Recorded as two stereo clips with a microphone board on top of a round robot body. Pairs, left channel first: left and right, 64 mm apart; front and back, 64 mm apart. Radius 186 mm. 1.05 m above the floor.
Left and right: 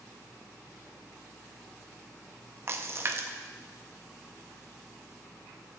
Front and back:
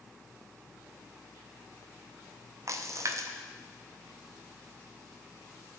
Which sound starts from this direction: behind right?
A splash, at 2.7 s.